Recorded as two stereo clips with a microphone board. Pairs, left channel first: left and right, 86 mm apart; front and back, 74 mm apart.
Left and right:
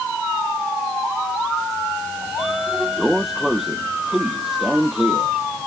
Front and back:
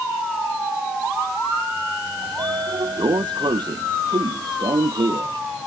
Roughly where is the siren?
No siren in this recording.